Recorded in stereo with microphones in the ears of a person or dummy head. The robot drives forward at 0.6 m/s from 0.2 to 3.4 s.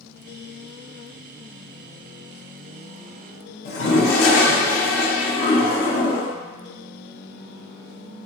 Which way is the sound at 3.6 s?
60° left (ahead or behind).